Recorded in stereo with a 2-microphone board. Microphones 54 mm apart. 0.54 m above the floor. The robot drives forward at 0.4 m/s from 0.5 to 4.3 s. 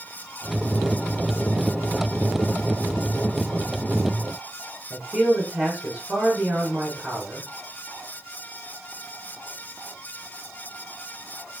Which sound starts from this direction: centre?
A man speaking, at 4.9 s.